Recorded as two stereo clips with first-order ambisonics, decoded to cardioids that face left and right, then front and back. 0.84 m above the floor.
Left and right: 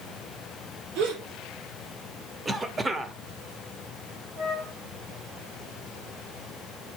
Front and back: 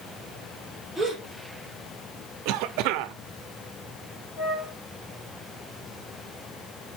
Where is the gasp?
90° right, 7 m.